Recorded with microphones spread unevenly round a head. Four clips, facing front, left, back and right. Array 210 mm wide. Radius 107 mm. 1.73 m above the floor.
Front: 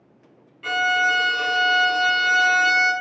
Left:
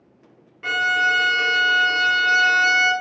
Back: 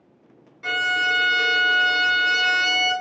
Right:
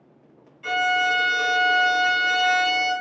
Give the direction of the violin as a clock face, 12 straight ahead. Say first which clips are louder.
Left 1 dB, front 3 dB; 9 o'clock.